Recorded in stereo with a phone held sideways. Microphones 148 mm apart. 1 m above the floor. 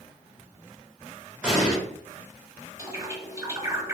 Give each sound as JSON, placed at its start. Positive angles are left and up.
{"t": 1.4, "sound": "an explosion", "side_deg": -10, "distance_m": 1.0}
{"t": 2.8, "sound": "a bird", "side_deg": -20, "distance_m": 0.7}